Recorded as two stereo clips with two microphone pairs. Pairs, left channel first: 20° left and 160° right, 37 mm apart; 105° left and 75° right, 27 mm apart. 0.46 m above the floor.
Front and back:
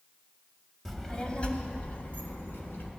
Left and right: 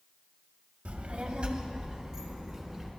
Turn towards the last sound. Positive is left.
turn(degrees=0)